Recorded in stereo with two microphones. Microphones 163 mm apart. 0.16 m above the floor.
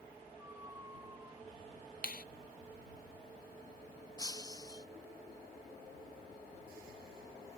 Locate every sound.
0.4 s a squeak: 20° right (ahead or behind)
2.0 s a clap: 65° left (ahead or behind)
4.2 s breaking glass: 25° left (ahead or behind)